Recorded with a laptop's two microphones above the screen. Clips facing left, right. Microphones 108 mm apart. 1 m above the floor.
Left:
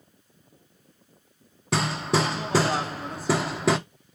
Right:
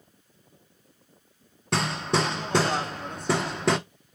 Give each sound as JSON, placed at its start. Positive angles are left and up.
{"t": 1.7, "sound": "hammering", "side_deg": 0, "distance_m": 0.5}